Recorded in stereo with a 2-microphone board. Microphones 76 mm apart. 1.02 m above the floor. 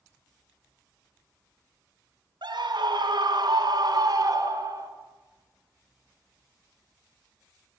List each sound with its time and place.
2.4 s a scream: 80° right, 4.5 m; by 4.9 s 50° right (ahead or behind), 3.5 m